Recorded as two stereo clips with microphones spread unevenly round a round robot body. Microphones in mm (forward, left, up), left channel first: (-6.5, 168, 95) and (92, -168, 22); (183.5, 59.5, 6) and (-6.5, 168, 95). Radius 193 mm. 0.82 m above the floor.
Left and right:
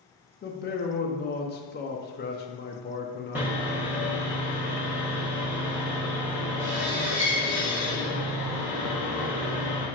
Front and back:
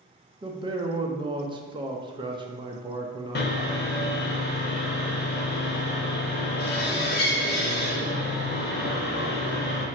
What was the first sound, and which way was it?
A man speaking, 55° left.